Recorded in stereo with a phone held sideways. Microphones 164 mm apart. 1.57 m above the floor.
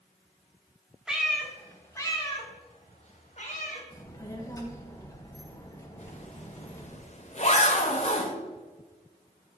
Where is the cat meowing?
5° right (ahead or behind), 1.4 m; by 3.8 s 55° left (ahead or behind), 2.0 m.